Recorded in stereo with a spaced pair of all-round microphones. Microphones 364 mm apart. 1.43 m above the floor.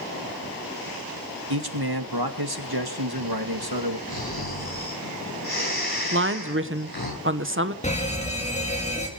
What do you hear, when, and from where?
1.5 s a man speaking: 85° right, 2.5 m
4.1 s snoring: 80° left, 9.5 m
6.1 s a woman speaking: 35° right (ahead or behind), 1.1 m
7.8 s a fire alarm: 20° left (ahead or behind), 4 m